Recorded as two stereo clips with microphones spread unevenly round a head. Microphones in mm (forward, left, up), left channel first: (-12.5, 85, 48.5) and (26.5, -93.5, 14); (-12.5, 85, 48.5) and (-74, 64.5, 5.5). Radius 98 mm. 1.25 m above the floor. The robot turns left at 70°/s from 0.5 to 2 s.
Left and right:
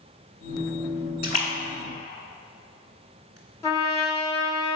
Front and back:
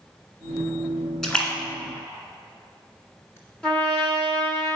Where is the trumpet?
40° left, 1.2 m.